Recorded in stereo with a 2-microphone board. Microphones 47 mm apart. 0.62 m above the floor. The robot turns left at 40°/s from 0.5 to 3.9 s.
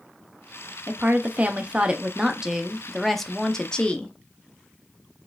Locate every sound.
0.9 s a woman speaking: 100° right, 0.6 m; by 4.2 s 140° left, 0.6 m